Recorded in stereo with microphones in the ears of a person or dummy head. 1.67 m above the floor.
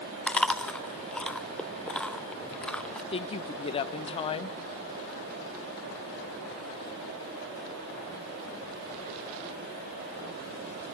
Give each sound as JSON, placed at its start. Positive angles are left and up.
{"t": 0.3, "sound": "chewing", "side_deg": 10, "distance_m": 0.5}
{"t": 3.1, "sound": "a woman speaking", "side_deg": 30, "distance_m": 1.1}